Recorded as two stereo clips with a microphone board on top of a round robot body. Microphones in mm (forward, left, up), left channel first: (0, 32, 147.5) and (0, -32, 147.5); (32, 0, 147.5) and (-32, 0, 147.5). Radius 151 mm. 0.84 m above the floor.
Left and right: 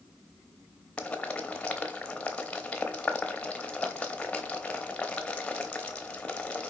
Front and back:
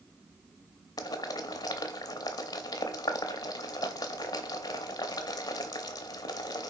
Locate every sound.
1.0 s boiling: 20° left, 0.6 m